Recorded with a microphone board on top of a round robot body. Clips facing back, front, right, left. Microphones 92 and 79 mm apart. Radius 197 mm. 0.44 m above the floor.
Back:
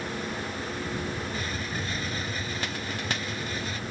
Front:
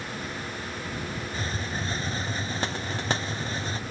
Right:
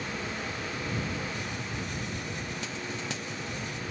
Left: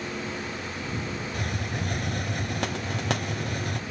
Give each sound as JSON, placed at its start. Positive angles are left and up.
{"t": 1.3, "sound": "a hiss", "azimuth_deg": 60}